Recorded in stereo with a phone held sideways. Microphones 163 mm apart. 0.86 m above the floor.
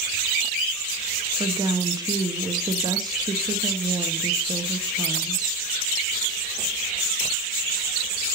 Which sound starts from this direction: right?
A woman speaking, at 1.4 s.